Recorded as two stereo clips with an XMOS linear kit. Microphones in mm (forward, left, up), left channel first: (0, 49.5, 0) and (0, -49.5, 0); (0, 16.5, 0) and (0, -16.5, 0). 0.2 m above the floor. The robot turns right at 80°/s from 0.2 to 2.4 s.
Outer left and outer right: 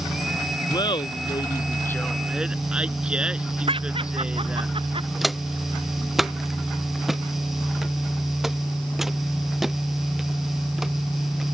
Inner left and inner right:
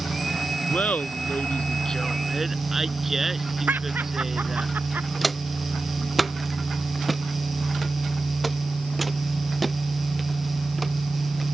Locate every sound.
0.7 s laughter: 50° left (ahead or behind); by 4.7 s 10° right (ahead or behind)
3.7 s laughter: 75° right (ahead or behind)
5.2 s footsteps: centre (ahead or behind); by 11.5 s 5° right (ahead or behind)